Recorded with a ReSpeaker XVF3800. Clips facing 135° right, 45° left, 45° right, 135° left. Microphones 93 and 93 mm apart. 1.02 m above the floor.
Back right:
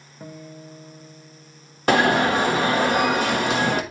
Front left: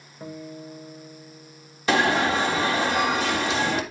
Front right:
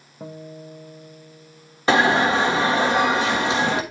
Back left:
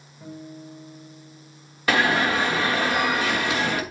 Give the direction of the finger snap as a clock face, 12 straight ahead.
I don't hear a finger snap.